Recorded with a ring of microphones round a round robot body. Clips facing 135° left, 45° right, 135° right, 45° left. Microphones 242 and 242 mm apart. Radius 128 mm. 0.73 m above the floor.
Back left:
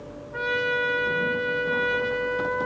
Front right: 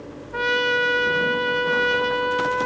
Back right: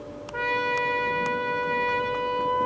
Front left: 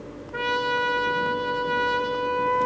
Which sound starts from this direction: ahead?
A trumpet, at 0.3 s.